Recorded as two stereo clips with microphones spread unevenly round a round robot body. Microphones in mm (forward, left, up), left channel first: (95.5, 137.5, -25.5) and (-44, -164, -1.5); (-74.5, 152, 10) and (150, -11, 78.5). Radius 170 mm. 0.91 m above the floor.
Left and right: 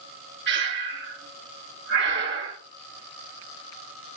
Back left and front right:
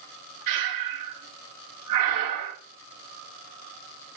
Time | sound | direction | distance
0.5 | breathing | 55° right | 1.8 m